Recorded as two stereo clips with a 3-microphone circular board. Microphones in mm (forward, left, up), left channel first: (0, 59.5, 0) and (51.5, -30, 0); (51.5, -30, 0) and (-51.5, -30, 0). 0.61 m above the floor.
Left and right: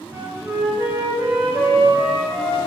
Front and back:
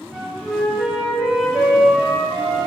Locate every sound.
0.1 s a flute: 95° right, 1.3 m